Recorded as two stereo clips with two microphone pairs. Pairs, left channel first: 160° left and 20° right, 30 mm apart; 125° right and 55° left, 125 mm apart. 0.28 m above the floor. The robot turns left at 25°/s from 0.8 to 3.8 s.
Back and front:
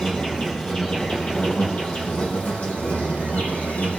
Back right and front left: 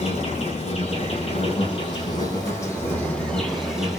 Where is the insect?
145° right, 7 m; by 4.0 s 140° left, 7 m.